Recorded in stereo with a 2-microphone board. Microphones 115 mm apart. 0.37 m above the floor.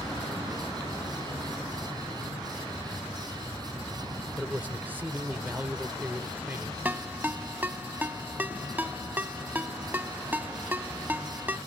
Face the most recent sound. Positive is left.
turn(degrees=-15)  # may be behind; listen again after turning